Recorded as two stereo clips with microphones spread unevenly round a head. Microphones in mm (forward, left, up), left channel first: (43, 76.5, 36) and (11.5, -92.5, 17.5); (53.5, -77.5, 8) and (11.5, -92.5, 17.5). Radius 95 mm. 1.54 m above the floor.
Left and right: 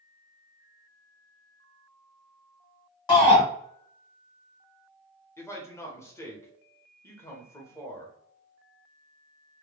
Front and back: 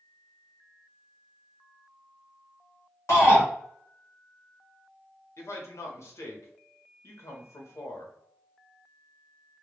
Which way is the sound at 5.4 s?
10° left.